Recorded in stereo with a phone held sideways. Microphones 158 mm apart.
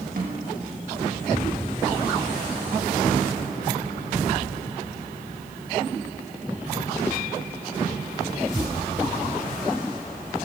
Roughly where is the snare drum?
Right.